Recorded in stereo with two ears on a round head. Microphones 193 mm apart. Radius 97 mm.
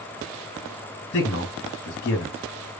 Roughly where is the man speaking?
Left.